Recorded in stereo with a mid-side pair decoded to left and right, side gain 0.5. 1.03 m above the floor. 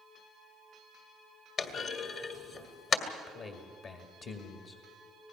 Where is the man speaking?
55° left, 1.9 m.